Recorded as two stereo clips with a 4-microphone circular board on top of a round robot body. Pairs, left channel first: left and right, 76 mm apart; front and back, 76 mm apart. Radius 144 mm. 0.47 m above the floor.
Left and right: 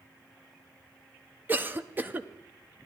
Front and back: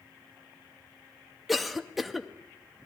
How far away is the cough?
About 0.8 m.